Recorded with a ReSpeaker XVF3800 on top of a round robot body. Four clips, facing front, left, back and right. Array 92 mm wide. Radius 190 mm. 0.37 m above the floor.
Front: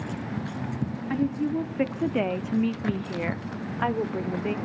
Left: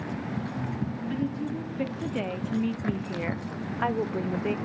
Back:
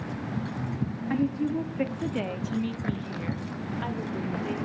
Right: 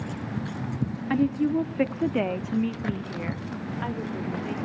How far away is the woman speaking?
About 1.4 m.